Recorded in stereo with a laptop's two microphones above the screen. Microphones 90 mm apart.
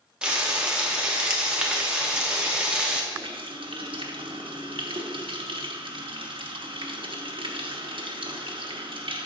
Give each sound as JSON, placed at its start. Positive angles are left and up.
{"t": 0.2, "sound": "frying", "side_deg": -10, "distance_m": 0.7}
{"t": 3.1, "sound": "a running tap", "side_deg": -75, "distance_m": 0.9}